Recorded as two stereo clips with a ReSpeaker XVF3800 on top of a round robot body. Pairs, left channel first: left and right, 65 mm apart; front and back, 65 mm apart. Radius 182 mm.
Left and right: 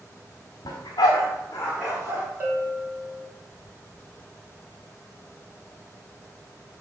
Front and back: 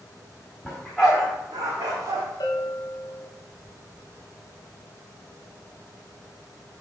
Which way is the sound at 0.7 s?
85° left.